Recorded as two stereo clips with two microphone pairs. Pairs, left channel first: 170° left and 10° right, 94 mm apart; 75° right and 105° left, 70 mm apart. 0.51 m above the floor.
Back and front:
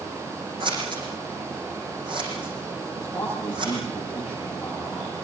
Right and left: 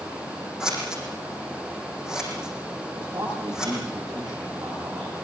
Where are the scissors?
25° left, 7 m.